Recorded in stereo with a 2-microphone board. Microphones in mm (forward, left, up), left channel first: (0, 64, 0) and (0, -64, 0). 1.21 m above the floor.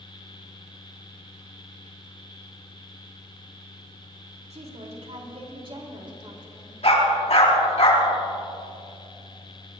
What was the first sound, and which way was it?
A woman speaking, 60° right (ahead or behind).